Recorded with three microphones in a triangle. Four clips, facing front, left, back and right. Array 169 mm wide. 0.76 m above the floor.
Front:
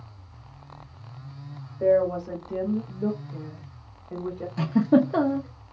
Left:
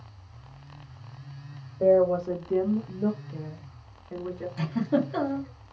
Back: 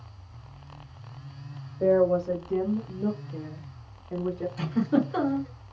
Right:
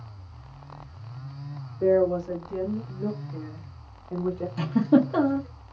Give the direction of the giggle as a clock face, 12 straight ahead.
1 o'clock.